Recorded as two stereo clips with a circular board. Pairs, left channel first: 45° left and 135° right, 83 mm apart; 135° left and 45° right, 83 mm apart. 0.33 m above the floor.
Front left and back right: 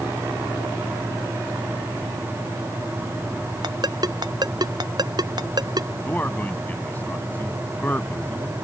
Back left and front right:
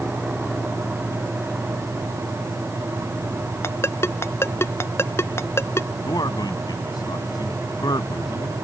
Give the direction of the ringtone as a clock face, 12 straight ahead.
6 o'clock.